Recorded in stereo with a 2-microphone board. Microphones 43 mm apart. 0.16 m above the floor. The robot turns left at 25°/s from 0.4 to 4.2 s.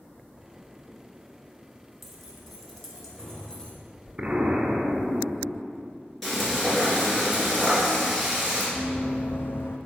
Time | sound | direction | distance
2.0 | keys jangling | 175° right | 1.3 m
4.2 | an explosion | 30° right (ahead or behind) | 1.0 m
6.2 | frying | 5° left (ahead or behind) | 2.5 m
8.8 | running footsteps | 20° left (ahead or behind) | 0.5 m